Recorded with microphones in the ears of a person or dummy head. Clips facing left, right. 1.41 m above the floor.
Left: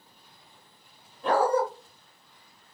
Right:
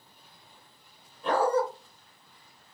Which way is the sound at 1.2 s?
50° left (ahead or behind).